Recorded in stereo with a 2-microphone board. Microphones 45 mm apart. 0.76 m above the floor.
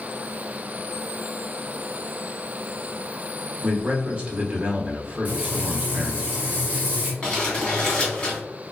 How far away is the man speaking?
About 0.8 m.